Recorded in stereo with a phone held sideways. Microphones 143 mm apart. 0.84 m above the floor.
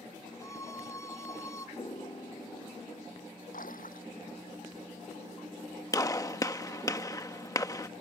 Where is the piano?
45° left (ahead or behind).